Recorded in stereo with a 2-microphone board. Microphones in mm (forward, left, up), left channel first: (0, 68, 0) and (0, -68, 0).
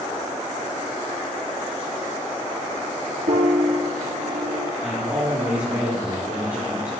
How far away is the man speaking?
About 6 m.